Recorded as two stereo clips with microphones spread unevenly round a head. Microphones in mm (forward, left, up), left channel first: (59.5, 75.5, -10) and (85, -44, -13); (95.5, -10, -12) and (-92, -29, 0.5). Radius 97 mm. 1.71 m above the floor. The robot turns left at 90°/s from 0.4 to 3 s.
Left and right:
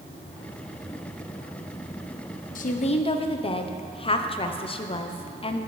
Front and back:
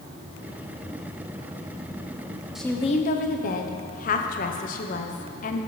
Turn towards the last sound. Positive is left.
turn(degrees=60)